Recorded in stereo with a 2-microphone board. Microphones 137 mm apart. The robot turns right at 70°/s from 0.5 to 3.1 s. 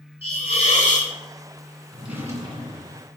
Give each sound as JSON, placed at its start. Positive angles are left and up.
{"t": 0.2, "sound": "a hiss", "azimuth_deg": 50, "distance_m": 2.5}
{"t": 1.9, "sound": "a drawer", "azimuth_deg": 175, "distance_m": 1.9}